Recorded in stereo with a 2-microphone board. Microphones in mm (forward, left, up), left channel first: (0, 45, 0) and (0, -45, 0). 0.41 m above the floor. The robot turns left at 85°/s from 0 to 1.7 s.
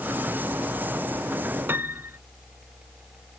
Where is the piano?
25° right (ahead or behind).